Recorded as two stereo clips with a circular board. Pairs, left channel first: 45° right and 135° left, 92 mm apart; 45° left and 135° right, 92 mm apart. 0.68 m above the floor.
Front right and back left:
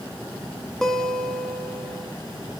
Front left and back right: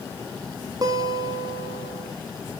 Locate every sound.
0.8 s a guitar: 130° right, 0.8 m